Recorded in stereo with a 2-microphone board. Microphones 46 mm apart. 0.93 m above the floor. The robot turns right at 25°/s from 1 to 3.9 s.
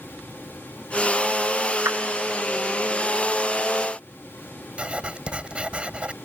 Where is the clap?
80° right.